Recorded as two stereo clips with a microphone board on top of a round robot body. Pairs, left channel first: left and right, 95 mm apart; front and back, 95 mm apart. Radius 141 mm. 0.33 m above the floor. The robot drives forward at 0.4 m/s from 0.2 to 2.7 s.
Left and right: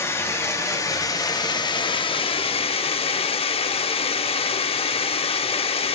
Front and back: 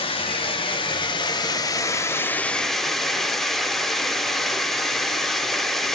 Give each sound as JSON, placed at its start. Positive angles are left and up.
{"t": 0.0, "sound": "running water", "azimuth_deg": 30, "distance_m": 1.2}